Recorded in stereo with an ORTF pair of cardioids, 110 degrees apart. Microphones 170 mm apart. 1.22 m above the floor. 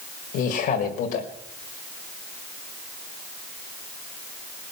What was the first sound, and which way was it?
A man speaking, 70° left.